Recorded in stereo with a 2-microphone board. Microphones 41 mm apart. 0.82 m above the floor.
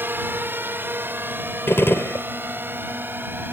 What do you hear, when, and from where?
0.0 s a drone: 60° right (ahead or behind); by 3.5 s 55° right (ahead or behind)
1.7 s a gunshot: 75° left (ahead or behind)